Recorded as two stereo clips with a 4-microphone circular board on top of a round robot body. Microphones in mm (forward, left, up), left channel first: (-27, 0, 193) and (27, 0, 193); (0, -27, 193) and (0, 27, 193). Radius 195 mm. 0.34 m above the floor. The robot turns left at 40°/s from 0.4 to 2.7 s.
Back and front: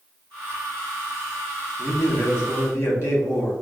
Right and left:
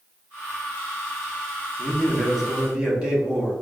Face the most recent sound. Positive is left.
turn(degrees=160)